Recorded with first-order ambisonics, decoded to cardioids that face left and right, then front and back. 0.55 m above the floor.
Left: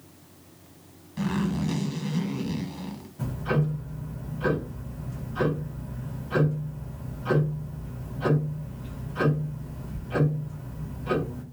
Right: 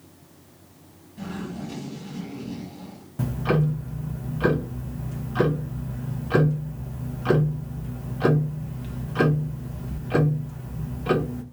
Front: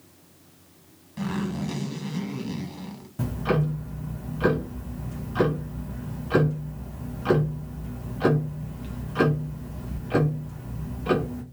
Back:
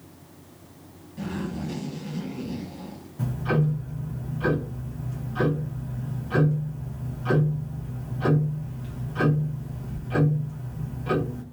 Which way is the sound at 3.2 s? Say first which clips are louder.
Right 4 dB, front 1 dB; 60° right.